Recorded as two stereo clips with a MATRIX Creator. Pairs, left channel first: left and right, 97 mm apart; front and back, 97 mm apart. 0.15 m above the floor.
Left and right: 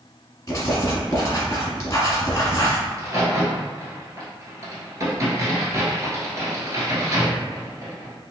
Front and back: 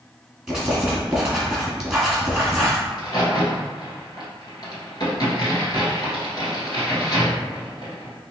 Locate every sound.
0.5 s writing: 100° left, 1.5 m
2.9 s a crack: 40° right, 1.6 m